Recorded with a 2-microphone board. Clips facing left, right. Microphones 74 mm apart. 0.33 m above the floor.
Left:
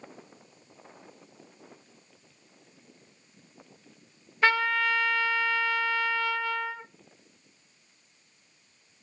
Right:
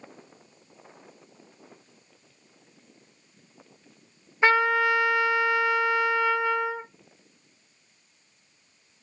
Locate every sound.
4.4 s a trumpet: 20° right (ahead or behind), 0.9 m